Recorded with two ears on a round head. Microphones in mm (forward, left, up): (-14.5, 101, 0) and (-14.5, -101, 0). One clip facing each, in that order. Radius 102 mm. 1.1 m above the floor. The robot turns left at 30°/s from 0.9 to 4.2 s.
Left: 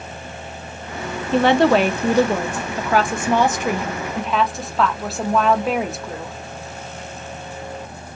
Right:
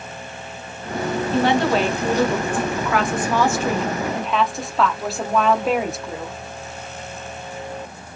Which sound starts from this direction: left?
A woman speaking, at 1.3 s.